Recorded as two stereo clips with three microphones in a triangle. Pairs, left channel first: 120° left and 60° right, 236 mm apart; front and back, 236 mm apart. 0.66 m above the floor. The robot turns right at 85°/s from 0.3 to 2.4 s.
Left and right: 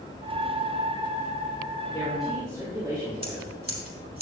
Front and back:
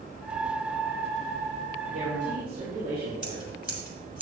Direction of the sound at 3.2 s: 60° left.